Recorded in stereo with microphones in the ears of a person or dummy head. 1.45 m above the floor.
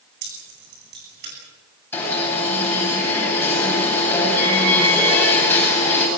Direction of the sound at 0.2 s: 60° right (ahead or behind).